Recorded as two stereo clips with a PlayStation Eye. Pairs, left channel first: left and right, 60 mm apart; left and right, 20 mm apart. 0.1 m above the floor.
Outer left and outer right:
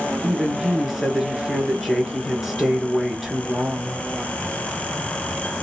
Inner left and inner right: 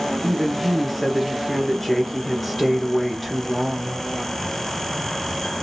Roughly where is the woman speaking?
Centre.